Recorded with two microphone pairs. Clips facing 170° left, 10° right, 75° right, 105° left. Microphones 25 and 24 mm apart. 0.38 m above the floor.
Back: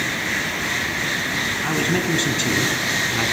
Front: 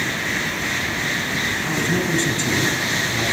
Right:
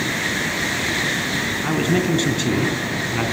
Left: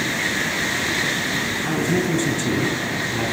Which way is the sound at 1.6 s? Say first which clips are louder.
Even, right 3 dB; 125° right.